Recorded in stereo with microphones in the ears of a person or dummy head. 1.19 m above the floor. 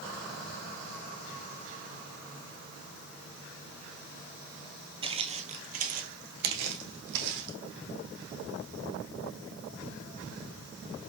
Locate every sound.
5.0 s footsteps: 30° right (ahead or behind), 1.9 m; by 7.6 s 70° right (ahead or behind), 3 m